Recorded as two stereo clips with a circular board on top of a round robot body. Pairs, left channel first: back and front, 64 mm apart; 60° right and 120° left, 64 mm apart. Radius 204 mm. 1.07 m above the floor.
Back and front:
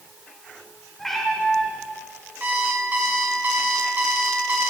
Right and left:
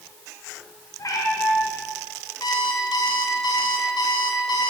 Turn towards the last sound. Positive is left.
turn(degrees=-65)